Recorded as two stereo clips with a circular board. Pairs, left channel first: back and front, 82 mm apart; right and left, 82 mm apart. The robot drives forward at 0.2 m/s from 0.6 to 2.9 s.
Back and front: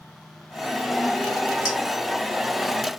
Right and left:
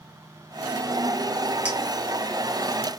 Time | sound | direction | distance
1.6 | a clink | 165° left | 1.0 m